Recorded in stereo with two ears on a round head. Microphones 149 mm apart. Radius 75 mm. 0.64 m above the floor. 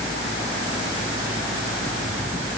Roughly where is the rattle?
No rattle in this recording.